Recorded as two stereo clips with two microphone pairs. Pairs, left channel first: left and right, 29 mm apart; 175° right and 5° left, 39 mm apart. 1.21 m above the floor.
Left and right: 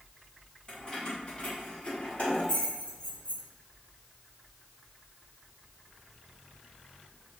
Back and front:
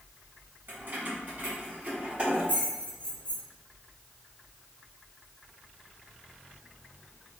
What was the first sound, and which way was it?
Keys jangling, 30° left.